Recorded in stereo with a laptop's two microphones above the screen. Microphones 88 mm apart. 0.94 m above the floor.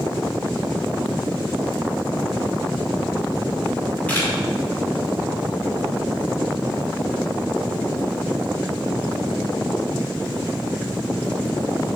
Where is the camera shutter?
20° left (ahead or behind), 2 m.